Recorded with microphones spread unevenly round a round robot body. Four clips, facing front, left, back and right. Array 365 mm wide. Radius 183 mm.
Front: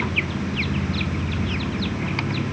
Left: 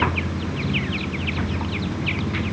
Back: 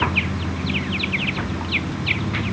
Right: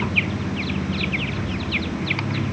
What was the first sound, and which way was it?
Only background noise.